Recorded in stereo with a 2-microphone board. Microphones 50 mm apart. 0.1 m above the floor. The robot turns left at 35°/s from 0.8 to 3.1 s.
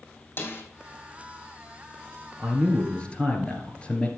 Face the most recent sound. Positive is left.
turn(degrees=20)  # may be behind; listen again after turning